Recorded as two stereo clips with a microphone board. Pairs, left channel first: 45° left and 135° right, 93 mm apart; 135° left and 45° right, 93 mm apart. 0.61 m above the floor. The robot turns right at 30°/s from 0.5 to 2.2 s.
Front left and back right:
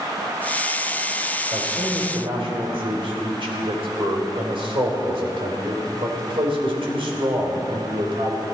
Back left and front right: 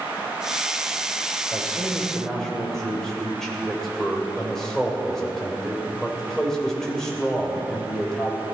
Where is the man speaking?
160° right, 3 m; by 8.4 s 140° right, 3 m.